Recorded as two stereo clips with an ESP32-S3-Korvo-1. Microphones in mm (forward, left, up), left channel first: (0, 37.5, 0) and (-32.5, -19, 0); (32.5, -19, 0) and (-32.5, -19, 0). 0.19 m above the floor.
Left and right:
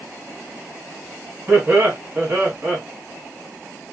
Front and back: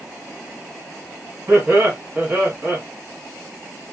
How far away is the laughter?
About 2 m.